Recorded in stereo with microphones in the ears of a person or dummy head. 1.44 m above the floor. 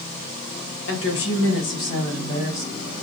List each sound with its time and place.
0.8 s a woman speaking: 80° left, 1.4 m; by 2.9 s 35° left (ahead or behind), 2.5 m